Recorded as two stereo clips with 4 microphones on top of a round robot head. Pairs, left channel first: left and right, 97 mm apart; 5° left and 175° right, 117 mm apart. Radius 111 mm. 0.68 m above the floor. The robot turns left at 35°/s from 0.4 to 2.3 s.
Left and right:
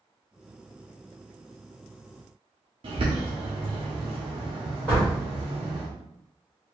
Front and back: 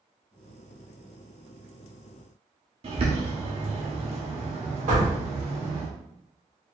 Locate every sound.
2.8 s a bird: 130° right, 0.7 m
4.9 s a door slam: 170° left, 2.0 m